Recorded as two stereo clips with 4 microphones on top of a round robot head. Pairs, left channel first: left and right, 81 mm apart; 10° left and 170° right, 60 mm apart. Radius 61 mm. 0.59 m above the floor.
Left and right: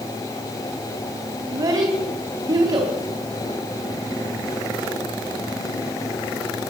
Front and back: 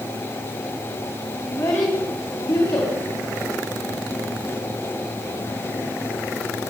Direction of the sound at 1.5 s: 45° right.